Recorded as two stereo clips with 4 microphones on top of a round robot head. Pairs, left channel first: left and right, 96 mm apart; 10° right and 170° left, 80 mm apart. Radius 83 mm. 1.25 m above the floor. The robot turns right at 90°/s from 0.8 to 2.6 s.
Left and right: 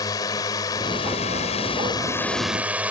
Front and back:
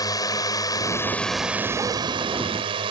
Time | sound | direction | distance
0.0 | a drone | 30° left | ?